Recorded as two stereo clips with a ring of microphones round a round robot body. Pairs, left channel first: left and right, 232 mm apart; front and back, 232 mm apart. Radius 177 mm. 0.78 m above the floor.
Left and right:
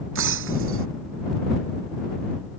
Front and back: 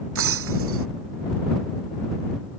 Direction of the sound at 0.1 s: 135° right.